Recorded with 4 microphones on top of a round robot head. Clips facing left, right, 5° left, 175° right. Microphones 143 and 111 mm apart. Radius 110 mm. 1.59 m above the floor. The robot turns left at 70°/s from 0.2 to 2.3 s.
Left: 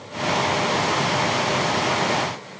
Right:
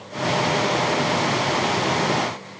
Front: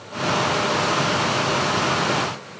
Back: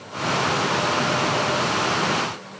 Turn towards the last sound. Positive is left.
No sound to turn to.